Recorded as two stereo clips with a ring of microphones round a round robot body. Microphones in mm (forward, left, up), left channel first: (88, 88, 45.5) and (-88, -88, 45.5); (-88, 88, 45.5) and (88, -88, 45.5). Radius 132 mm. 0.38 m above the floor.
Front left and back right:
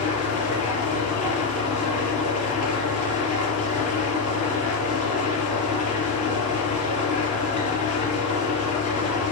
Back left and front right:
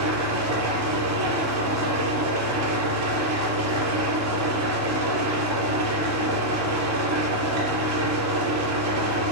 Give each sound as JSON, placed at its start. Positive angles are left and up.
{"t": 0.0, "sound": "an engine running", "azimuth_deg": -20, "distance_m": 4.0}